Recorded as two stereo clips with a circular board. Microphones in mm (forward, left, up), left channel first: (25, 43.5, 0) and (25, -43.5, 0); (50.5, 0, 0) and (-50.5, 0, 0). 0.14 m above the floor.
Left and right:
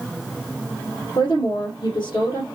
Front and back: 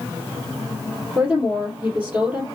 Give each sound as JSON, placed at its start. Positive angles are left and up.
{"t": 1.1, "sound": "a woman speaking", "azimuth_deg": 110, "distance_m": 3.0}